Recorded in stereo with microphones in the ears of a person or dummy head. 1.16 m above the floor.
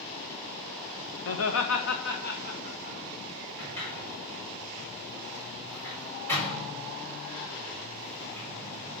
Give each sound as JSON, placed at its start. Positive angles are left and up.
{"t": 1.2, "sound": "laughter", "side_deg": 65, "distance_m": 0.9}
{"t": 3.6, "sound": "a sliding door", "side_deg": 10, "distance_m": 4.0}